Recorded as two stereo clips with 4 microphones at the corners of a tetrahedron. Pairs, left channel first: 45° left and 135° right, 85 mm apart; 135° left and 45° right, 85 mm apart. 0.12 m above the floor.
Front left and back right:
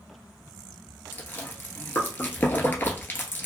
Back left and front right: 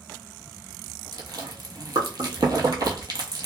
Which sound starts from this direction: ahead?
Chewing, at 1.1 s.